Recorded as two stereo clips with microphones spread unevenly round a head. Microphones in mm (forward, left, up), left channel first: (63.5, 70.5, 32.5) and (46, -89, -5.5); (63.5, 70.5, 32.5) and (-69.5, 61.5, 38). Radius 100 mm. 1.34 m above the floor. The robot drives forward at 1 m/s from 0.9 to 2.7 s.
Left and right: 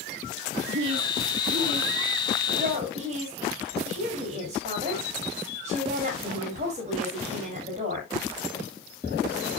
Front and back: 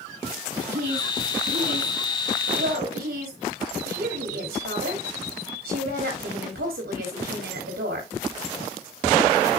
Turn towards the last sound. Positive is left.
turn(degrees=-155)